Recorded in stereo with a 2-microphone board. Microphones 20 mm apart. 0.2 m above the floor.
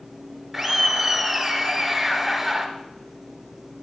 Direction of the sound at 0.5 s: Centre (ahead or behind).